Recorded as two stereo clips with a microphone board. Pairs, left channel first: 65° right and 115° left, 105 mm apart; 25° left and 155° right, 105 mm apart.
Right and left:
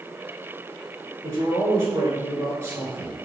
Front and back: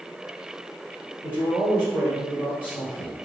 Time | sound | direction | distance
1.2 | a man speaking | 135° left | 1.2 m